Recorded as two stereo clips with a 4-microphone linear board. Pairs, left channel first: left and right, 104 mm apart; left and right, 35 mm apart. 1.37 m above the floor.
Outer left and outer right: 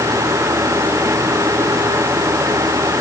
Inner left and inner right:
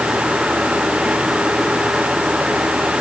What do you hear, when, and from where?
Only background noise.